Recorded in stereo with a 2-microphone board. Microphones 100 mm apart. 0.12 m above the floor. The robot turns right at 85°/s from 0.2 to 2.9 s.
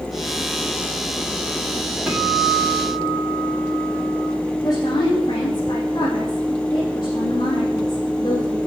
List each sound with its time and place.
2.1 s a guitar: 170° right, 5 m; by 4.2 s 100° right, 5 m
4.6 s a woman speaking: 40° left (ahead or behind), 5 m